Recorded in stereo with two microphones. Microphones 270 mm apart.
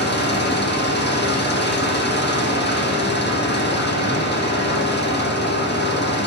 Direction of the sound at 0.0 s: 40° left (ahead or behind).